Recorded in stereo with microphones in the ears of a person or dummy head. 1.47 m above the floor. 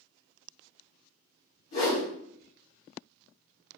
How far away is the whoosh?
About 2 m.